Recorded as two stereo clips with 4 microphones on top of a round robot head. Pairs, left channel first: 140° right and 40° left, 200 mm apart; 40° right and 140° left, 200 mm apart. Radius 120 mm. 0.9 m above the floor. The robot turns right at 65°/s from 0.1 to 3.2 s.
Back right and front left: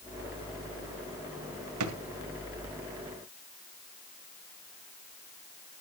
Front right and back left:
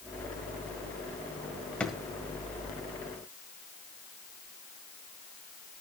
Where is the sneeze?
I don't hear a sneeze.